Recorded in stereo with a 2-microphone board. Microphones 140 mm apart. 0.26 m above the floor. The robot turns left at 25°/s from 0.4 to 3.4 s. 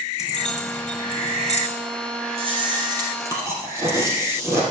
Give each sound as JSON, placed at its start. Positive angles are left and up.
{"t": 0.2, "sound": "keys jangling", "side_deg": 60, "distance_m": 2.0}
{"t": 2.4, "sound": "chewing", "side_deg": -45, "distance_m": 4.0}